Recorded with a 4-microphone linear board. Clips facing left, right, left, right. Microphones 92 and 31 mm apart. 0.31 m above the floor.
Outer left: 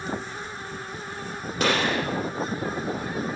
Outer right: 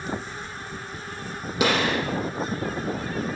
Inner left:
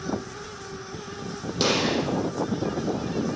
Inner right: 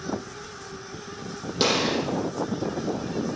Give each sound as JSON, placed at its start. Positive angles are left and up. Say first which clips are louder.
{"t": 1.6, "sound": "a gunshot", "louder": "outer right 1 dB, even", "side_deg": -5, "distance_m": 7.0}